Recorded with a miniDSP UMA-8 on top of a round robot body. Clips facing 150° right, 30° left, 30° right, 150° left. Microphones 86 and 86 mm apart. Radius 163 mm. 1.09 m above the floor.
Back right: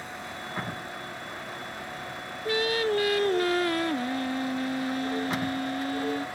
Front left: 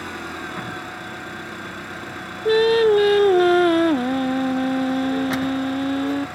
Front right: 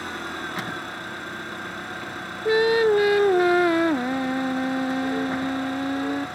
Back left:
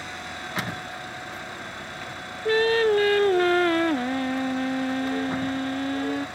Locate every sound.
0.0 s an engine running: 10° left
2.5 s singing: 45° left